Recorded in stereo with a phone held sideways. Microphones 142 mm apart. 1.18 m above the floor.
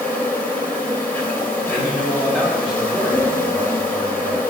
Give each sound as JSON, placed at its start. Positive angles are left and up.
{"t": 0.0, "sound": "an insect", "side_deg": 10, "distance_m": 2.5}
{"t": 1.7, "sound": "a man speaking", "side_deg": -5, "distance_m": 2.5}